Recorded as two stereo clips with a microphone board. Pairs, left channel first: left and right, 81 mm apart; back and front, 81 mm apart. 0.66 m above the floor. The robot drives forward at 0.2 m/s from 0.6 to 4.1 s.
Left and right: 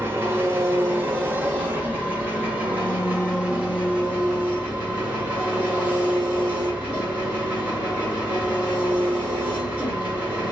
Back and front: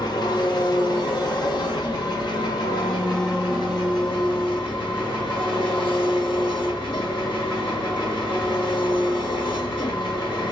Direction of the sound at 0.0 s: 150° right.